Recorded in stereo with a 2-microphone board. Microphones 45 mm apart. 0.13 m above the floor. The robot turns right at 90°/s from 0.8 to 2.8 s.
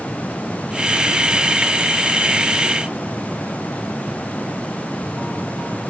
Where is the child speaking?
No child speaking in this recording.